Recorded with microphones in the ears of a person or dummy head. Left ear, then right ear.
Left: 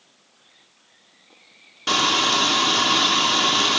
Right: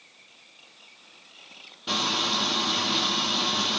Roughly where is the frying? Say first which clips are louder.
Left 7 dB; left.